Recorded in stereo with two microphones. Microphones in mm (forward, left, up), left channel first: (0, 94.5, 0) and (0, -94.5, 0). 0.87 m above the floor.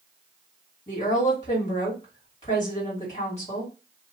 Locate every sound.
0.9 s a woman speaking: 30° left (ahead or behind), 2 m